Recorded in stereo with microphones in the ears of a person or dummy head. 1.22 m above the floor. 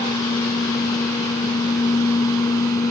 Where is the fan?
10° left (ahead or behind).